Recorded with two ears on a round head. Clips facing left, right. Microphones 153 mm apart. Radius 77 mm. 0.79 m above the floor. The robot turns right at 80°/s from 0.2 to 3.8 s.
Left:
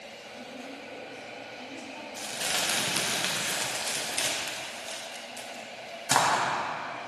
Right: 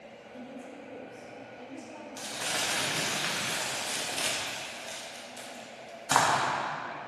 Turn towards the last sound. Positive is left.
turn(degrees=15)  # may be behind; listen again after turning